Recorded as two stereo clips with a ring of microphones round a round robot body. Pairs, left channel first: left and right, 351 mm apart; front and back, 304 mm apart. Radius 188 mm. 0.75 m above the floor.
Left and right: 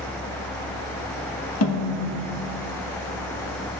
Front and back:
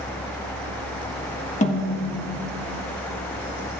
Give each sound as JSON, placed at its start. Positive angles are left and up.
{"t": 1.6, "sound": "a snare drum", "azimuth_deg": 60, "distance_m": 1.5}